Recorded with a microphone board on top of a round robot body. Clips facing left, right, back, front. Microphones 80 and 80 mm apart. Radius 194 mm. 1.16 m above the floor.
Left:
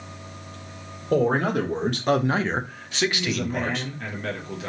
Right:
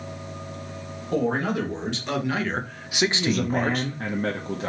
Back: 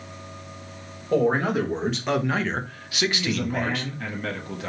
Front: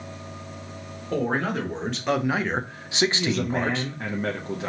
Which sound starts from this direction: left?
A man speaking, at 1.1 s.